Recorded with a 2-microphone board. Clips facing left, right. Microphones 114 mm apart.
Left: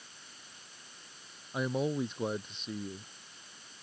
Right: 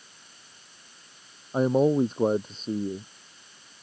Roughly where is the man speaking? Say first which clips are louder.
Right 11 dB; right.